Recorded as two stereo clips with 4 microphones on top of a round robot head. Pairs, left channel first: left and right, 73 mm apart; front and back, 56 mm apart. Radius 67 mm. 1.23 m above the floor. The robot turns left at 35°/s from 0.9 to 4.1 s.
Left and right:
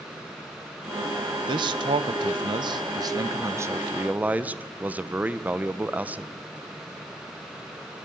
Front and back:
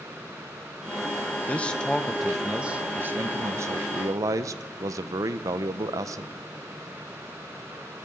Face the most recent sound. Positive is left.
turn(degrees=-160)